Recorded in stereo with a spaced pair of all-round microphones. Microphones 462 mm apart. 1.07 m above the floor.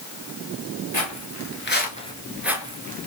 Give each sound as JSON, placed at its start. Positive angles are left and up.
{"t": 0.9, "sound": "footsteps", "side_deg": 40, "distance_m": 1.3}